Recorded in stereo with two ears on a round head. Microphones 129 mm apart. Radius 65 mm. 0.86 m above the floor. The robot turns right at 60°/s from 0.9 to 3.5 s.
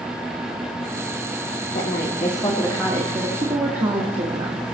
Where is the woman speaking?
125° left, 1.3 m; by 4.7 s 130° right, 1.3 m.